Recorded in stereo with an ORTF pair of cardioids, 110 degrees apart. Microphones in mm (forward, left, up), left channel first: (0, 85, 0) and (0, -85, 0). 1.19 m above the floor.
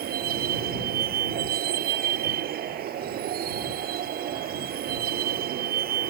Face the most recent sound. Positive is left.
turn(degrees=-65)